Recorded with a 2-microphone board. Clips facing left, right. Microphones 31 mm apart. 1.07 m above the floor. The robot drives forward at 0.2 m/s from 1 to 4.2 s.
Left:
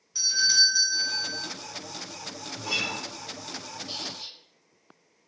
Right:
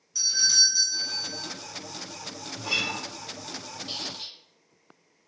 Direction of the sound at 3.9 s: 35° right (ahead or behind).